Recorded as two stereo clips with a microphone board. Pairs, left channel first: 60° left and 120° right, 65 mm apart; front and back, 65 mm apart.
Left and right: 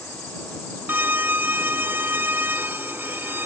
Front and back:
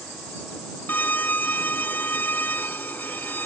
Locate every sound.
0.9 s a violin: 60° right